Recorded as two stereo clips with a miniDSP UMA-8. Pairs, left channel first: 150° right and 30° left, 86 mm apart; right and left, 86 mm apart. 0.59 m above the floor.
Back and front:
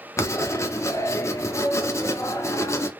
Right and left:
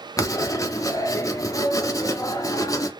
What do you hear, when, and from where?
0.2 s writing: 115° right, 0.6 m